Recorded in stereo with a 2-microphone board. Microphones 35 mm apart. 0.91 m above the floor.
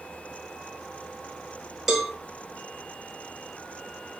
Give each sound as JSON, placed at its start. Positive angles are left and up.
{"t": 1.9, "sound": "a cowbell", "side_deg": -10, "distance_m": 4.0}